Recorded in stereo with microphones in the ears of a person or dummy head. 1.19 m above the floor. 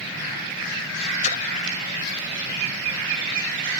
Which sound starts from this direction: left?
A splash, at 1.2 s.